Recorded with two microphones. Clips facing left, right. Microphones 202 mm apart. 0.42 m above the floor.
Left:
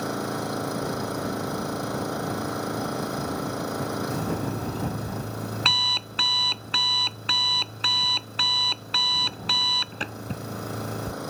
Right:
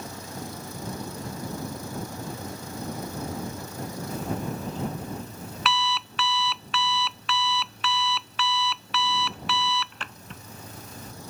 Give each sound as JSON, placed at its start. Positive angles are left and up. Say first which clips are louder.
{"t": 0.0, "sound": "an engine running", "louder": "left 9 dB", "side_deg": 75}
{"t": 4.1, "sound": "an alarm clock", "louder": "left 3 dB", "side_deg": 40}